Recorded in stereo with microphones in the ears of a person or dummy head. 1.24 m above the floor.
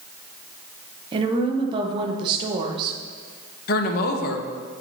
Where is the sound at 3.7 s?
50° left (ahead or behind), 0.8 m.